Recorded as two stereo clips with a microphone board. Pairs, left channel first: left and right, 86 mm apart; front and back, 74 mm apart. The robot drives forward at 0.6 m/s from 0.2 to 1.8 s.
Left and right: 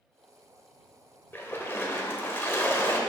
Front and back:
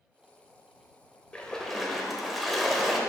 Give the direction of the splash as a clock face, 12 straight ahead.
10 o'clock.